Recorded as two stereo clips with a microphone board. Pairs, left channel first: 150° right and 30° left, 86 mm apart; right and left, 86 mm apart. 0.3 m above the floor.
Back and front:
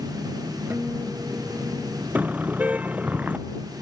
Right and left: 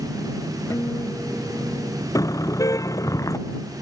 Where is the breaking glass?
No breaking glass in this recording.